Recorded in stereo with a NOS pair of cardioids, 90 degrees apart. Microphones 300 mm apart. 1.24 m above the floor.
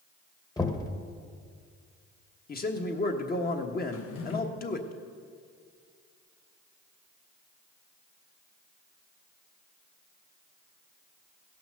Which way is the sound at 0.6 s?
10° left.